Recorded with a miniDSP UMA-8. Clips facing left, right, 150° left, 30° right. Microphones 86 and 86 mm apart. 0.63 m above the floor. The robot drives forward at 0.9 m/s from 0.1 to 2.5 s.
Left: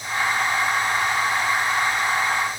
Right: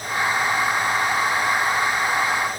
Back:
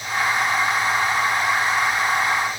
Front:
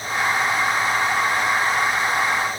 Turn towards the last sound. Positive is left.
No sound to turn to.